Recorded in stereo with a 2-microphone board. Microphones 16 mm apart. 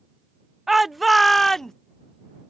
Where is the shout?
10° right (ahead or behind); by 1.7 s 35° left (ahead or behind).